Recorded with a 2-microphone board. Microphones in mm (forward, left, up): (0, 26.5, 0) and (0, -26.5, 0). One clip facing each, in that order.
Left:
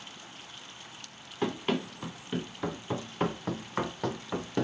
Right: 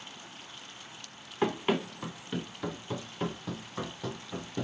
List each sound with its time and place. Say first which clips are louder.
1.4 s running footsteps: right 2 dB; 20° right (ahead or behind), 1.1 m; by 4.6 s 75° left (ahead or behind), 1.3 m